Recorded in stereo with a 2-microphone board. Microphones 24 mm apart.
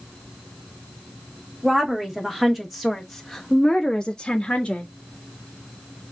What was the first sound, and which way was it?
A woman speaking, 15° right (ahead or behind).